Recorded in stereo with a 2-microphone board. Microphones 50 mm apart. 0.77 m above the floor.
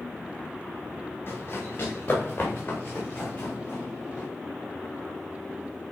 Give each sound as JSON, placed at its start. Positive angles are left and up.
{"t": 1.3, "sound": "running footsteps", "side_deg": 45, "distance_m": 6.0}